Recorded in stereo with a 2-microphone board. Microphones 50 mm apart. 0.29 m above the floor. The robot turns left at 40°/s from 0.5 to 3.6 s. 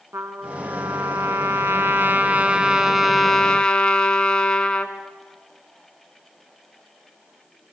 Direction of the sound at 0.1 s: 75° right.